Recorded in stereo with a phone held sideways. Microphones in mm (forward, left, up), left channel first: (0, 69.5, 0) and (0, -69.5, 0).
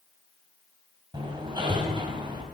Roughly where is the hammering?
Right.